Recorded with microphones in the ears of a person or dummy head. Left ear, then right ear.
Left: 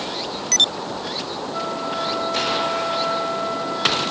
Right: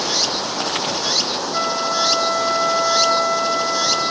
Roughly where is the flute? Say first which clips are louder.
Right 5 dB; right.